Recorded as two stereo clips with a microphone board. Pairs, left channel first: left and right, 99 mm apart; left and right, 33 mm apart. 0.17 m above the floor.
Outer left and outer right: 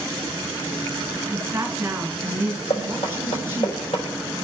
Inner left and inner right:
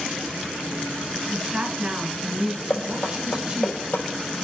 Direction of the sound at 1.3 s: 25° right (ahead or behind).